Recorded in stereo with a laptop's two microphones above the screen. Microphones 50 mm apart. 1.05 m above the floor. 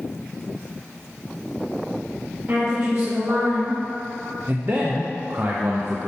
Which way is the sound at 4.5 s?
45° right (ahead or behind).